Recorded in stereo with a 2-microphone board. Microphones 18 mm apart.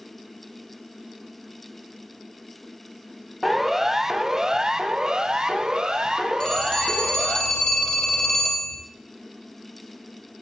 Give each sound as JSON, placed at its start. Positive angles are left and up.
{"t": 3.4, "sound": "a siren", "side_deg": -5, "distance_m": 2.0}
{"t": 6.4, "sound": "a phone ringing", "side_deg": 50, "distance_m": 5.0}